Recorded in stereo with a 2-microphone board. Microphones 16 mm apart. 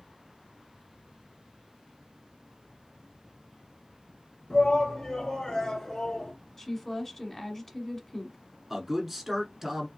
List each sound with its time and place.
4.5 s a shout: 50° left (ahead or behind), 2.5 m; by 6.3 s 45° left (ahead or behind), 1.9 m
6.6 s a woman speaking: 20° left (ahead or behind), 1.2 m
8.7 s a man speaking: 15° right (ahead or behind), 1.8 m